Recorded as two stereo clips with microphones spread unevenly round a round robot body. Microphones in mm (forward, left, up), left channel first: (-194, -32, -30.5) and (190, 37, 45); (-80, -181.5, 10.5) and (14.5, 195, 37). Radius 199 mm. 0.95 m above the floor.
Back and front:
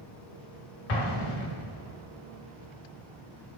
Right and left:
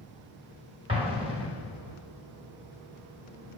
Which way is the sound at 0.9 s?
150° left.